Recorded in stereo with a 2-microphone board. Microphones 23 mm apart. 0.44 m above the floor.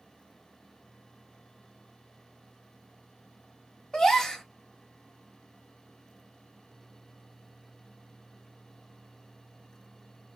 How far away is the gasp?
About 0.9 m.